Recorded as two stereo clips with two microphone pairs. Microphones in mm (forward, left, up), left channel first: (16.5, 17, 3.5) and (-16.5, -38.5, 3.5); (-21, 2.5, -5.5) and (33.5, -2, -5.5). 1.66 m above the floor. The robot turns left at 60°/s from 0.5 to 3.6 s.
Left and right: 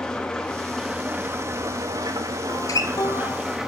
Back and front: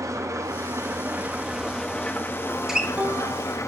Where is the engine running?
20° right, 0.8 m; by 3.7 s 155° left, 0.8 m.